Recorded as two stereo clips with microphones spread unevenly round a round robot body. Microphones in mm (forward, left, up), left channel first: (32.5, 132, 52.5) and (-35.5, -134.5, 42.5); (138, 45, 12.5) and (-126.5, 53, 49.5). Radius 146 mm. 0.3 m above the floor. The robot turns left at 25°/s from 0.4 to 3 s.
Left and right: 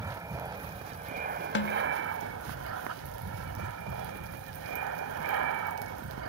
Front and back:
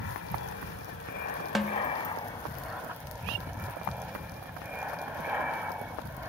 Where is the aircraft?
30° right; by 6.3 s 95° right.